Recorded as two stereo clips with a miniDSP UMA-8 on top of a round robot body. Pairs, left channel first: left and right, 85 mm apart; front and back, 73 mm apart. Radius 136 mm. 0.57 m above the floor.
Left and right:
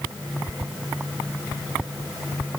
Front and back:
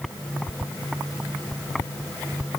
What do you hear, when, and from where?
Only background noise.